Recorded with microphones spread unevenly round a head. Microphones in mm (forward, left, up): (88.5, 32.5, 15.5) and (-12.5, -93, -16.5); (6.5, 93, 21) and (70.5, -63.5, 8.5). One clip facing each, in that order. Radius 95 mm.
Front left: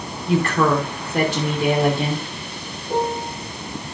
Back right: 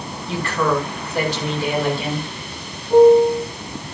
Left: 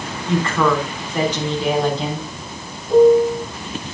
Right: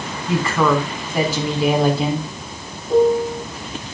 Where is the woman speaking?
15° left, 5 m.